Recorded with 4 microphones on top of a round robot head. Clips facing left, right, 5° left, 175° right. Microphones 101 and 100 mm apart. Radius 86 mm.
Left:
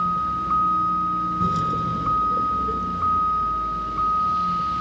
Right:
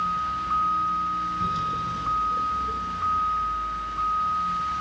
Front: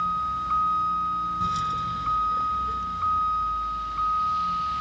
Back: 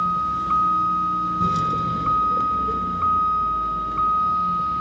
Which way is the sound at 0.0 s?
150° left.